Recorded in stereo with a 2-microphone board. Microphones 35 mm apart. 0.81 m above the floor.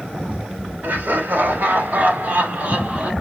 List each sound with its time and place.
0.8 s laughter: 80° right, 2.5 m; by 3.1 s 45° right (ahead or behind), 2 m